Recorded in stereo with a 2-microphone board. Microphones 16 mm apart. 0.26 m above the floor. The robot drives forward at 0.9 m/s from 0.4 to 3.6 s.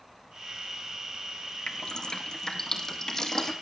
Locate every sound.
1.7 s dripping: 65° left (ahead or behind), 1.1 m; by 3.5 s 25° left (ahead or behind), 2.5 m